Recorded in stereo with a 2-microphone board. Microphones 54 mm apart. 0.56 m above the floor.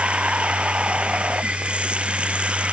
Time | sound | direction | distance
0.0 | running water | 15° right (ahead or behind) | ?